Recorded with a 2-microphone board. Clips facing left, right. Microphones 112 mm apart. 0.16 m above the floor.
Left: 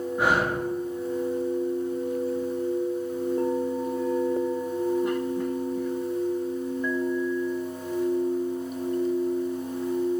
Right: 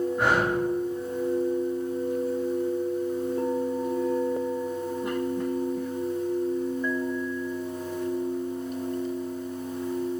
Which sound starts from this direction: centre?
Breathing, at 0.2 s.